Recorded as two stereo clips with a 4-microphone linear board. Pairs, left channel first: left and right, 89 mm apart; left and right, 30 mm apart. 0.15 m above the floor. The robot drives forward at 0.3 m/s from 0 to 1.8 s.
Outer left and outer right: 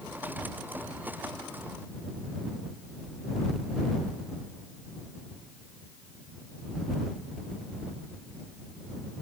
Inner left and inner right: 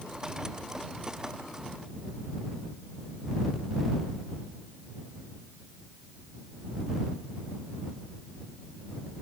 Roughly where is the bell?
No bell in this recording.